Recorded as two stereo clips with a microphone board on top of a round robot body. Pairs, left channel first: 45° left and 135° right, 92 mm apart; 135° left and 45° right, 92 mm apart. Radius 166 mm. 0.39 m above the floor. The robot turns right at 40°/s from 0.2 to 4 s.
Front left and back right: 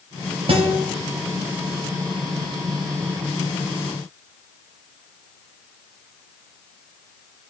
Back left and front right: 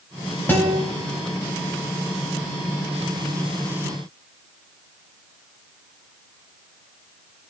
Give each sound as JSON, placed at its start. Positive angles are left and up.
{"t": 0.5, "sound": "a guitar", "azimuth_deg": -155, "distance_m": 1.1}